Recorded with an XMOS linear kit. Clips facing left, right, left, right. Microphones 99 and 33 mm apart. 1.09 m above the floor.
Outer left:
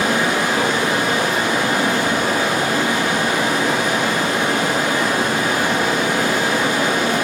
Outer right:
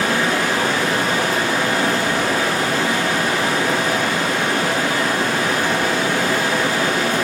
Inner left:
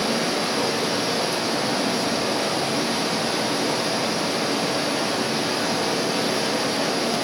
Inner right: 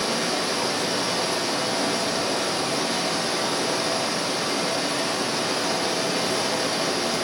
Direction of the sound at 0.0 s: 15° left (ahead or behind).